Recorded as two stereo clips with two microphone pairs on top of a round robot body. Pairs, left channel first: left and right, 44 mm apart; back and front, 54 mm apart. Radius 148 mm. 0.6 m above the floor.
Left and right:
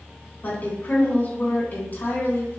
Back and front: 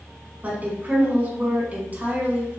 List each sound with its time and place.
0.4 s a woman speaking: 55° left, 1.7 m